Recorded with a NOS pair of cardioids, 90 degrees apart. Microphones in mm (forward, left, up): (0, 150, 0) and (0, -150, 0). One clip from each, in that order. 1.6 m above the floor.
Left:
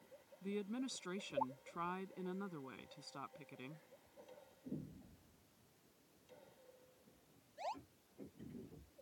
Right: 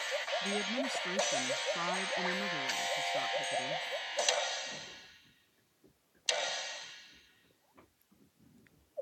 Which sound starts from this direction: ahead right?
A woman speaking, at 0.4 s.